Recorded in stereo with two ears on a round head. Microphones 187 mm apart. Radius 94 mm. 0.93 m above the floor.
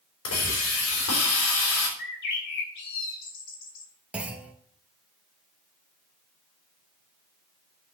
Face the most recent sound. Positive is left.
turn(degrees=-5)  # may be behind; listen again after turning